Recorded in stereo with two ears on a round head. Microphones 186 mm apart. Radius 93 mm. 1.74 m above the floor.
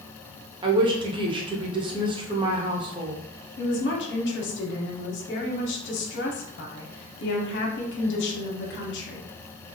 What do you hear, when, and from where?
0.6 s a woman speaking: 25° right (ahead or behind), 0.6 m
3.6 s a woman speaking: 60° left (ahead or behind), 0.8 m